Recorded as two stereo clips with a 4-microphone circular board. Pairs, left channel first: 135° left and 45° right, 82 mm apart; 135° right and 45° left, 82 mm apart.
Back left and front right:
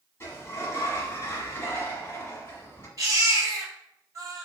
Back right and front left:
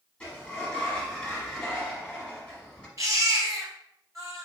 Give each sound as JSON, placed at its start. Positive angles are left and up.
{"t": 0.2, "sound": "a sliding door", "azimuth_deg": 150, "distance_m": 1.3}
{"t": 3.0, "sound": "a baby crying", "azimuth_deg": 0, "distance_m": 1.3}